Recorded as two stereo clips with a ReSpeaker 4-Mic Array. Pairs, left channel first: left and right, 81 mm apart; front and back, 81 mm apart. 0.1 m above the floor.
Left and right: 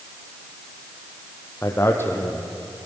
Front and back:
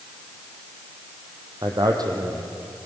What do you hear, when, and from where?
1.6 s a man speaking: 150° left, 3 m